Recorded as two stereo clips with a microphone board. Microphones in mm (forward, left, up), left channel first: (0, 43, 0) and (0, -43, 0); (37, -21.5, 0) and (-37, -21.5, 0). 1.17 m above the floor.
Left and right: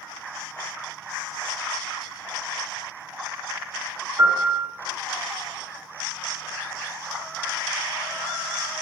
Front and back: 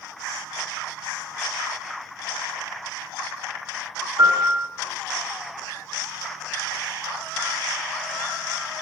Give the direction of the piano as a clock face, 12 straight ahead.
5 o'clock.